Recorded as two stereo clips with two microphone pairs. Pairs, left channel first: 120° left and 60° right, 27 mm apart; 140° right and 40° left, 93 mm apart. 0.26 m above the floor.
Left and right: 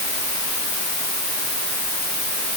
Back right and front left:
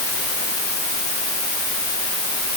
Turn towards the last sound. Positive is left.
No sound to turn to.